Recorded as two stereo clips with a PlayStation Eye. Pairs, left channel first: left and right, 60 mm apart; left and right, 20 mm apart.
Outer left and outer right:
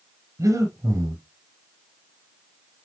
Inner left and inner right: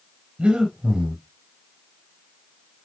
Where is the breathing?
80° right, 2.5 m.